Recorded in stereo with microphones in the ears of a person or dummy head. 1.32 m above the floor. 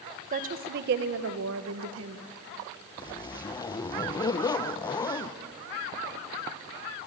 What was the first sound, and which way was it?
A woman speaking, 40° right (ahead or behind).